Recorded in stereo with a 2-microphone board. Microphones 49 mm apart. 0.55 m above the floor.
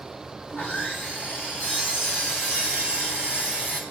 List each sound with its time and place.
0.5 s sawing: 40° left (ahead or behind), 3.5 m